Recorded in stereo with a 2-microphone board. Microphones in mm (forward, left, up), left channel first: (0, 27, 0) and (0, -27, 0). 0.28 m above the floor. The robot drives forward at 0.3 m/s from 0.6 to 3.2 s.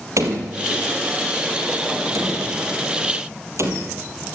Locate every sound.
0.2 s a door slam: 70° right (ahead or behind), 4.5 m; by 4.0 s 65° right (ahead or behind), 5 m